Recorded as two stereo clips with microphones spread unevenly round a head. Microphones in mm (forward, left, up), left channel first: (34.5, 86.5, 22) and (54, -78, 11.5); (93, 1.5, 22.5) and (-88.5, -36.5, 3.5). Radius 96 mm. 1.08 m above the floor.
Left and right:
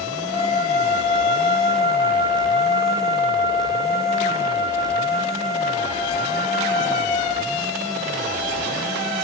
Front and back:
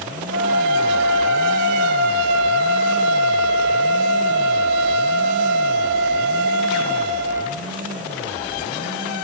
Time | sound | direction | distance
0.3 | a flute | 150° right | 1.8 m